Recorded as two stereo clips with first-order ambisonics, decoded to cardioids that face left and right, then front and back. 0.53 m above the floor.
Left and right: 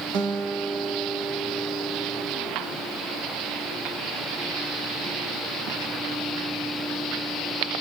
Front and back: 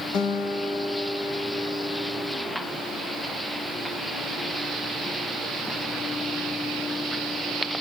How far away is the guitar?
About 1.5 m.